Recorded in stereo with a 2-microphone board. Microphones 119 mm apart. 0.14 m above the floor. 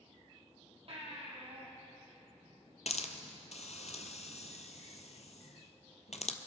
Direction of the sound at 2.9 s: 70° left (ahead or behind).